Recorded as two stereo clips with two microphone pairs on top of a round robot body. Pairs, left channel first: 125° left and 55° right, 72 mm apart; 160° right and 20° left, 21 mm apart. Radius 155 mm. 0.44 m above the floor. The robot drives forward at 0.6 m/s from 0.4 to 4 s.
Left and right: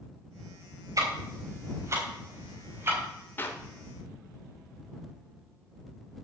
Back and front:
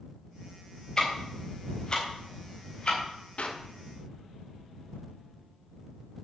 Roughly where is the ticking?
Right.